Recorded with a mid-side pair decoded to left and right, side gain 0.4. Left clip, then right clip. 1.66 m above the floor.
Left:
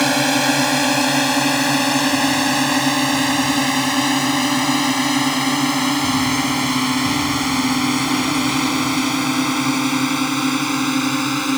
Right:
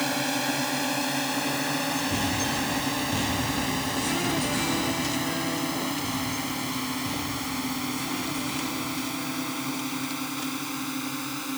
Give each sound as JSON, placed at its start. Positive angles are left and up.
{"t": 0.0, "sound": "a drone", "azimuth_deg": 65}